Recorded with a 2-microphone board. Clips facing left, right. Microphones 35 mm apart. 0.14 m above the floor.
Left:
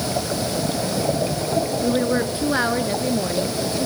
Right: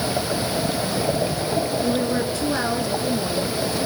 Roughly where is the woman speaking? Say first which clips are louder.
Left 2 dB; left.